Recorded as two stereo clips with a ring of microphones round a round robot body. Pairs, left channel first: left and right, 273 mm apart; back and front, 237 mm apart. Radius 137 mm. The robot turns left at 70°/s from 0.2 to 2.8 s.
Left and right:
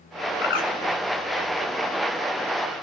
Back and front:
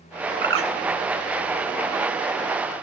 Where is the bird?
45° left, 1.9 m; by 0.7 s 25° left, 1.9 m.